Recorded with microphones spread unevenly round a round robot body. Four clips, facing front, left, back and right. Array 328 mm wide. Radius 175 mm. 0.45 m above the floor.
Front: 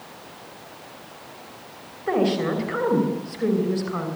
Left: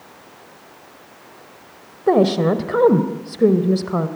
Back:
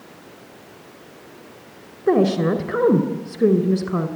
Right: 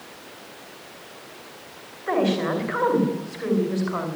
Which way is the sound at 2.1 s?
120° left.